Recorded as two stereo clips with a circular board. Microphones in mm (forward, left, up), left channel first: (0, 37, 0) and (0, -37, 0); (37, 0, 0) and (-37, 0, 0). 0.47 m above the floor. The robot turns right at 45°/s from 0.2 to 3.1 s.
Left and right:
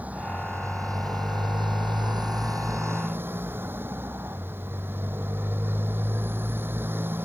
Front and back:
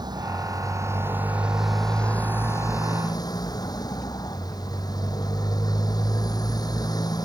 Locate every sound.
0.0 s a motorcycle: 160° right; by 7.2 s 30° right